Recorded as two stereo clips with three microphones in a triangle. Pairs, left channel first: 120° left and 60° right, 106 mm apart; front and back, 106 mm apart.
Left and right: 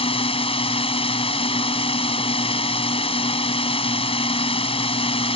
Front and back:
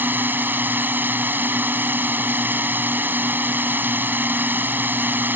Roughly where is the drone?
Left.